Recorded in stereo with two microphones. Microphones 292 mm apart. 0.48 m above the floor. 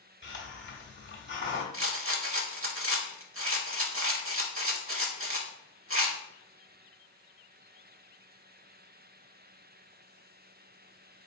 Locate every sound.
0.2 s a hiss: 40° left (ahead or behind), 0.8 m
1.7 s a rattle: 45° right (ahead or behind), 0.7 m